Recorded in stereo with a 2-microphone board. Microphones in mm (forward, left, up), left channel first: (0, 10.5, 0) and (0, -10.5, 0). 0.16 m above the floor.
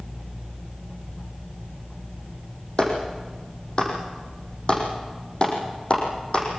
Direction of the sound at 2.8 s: 40° left (ahead or behind).